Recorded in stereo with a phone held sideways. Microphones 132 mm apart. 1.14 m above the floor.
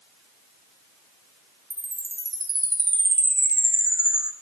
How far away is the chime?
About 0.6 m.